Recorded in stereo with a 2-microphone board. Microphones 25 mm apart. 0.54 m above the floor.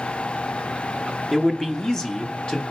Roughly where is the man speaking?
Centre.